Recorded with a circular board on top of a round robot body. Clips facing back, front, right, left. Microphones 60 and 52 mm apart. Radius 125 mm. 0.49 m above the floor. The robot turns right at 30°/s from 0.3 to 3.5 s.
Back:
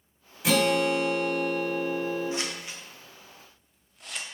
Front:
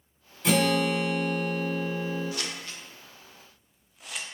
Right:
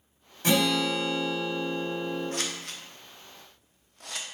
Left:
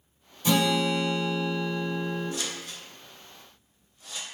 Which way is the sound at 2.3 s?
120° right.